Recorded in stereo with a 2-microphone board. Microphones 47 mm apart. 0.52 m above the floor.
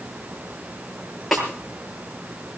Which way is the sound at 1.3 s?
Centre (ahead or behind).